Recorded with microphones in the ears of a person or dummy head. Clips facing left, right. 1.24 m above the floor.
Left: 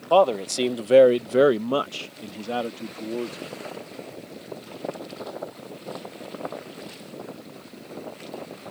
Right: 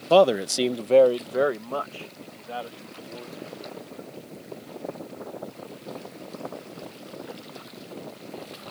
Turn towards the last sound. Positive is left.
turn(degrees=85)